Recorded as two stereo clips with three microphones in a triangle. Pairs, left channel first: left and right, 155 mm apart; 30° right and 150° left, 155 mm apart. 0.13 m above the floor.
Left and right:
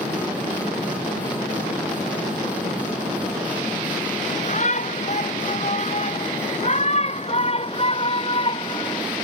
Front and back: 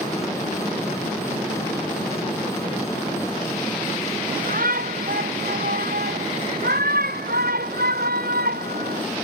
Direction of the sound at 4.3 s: 130° left.